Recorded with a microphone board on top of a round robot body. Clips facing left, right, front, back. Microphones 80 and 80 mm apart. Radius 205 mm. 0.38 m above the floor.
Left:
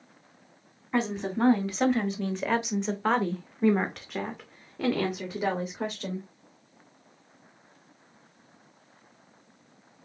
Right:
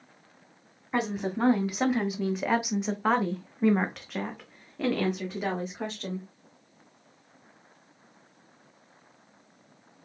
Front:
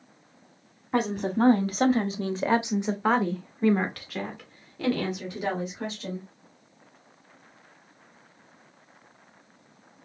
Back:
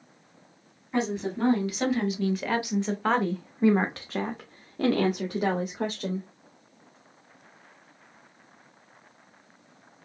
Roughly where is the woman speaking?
Ahead.